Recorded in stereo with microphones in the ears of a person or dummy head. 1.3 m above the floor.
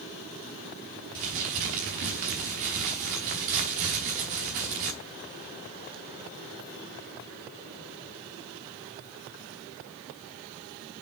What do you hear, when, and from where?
1.1 s crumpling: 35° right (ahead or behind), 1.0 m